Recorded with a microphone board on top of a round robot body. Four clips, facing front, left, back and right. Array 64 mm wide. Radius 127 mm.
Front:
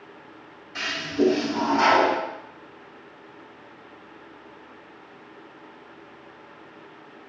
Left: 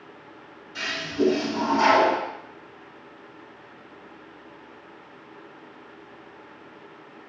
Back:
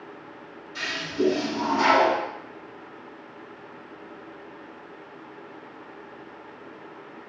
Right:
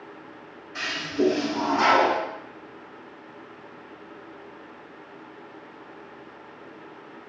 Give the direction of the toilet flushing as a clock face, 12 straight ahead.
1 o'clock.